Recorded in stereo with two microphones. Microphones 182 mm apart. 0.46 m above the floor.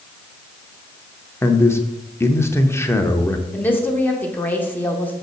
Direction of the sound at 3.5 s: 10° left (ahead or behind).